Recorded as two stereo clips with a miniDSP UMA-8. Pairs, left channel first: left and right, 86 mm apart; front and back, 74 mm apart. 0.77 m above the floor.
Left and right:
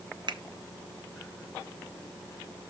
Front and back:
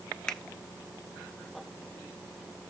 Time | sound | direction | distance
0.3 | a finger snap | 80° right | 0.6 m